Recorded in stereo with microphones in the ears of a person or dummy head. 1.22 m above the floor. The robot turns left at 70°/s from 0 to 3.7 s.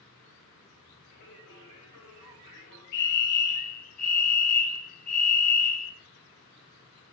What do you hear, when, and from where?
1.1 s singing: 145° left, 0.7 m; by 2.8 s 25° left, 0.7 m
2.9 s a fire alarm: 115° left, 1.7 m; by 5.9 s 60° left, 1.7 m